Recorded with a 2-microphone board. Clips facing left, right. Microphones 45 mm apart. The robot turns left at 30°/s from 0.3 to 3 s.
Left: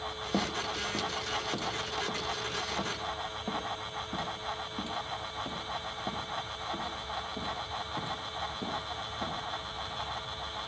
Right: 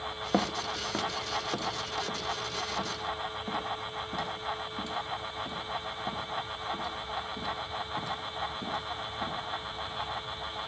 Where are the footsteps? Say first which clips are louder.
Right 3 dB; 45° right (ahead or behind), 1.3 m; by 9.3 s 30° left (ahead or behind), 12.5 m.